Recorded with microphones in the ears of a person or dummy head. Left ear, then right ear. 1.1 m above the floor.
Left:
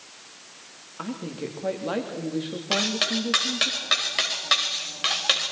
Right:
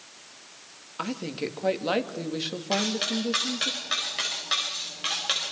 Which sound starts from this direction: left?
Cutlery clinking, at 2.7 s.